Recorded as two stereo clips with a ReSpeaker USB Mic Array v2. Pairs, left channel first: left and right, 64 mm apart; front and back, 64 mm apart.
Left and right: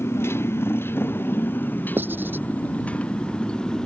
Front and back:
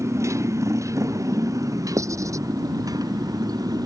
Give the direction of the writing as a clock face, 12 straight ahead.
5 o'clock.